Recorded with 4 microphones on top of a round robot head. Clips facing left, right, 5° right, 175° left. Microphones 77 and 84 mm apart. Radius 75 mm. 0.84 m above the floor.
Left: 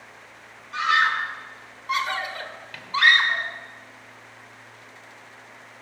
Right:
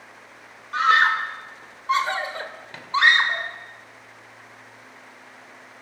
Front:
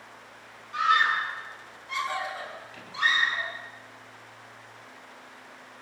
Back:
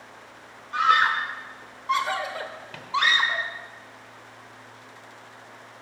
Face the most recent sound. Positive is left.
turn(degrees=-160)